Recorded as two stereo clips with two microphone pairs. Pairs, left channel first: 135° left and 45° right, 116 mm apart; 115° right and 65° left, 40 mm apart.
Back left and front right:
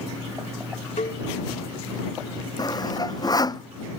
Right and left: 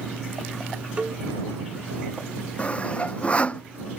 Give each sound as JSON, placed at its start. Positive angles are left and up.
{"t": 1.0, "sound": "a cowbell", "azimuth_deg": 130}
{"t": 2.6, "sound": "sawing", "azimuth_deg": -170}